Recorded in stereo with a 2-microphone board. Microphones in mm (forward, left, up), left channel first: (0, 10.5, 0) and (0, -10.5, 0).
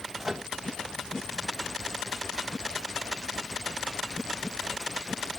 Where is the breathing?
I don't hear breathing.